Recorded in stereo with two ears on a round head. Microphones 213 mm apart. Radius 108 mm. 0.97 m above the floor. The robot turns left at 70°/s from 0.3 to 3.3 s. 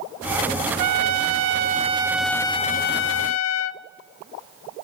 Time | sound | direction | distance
0.8 | a trumpet | 80° right | 0.6 m